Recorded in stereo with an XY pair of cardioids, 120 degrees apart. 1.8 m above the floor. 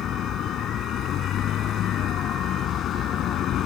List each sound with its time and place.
0.0 s a vehicle: 60° left